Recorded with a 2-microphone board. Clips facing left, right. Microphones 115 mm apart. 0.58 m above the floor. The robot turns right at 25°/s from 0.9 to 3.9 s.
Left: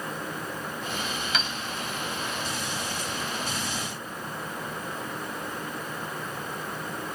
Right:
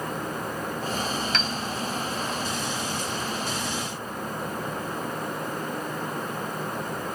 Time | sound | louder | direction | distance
1.3 | a piano | right 2 dB | 5° left (ahead or behind) | 0.7 m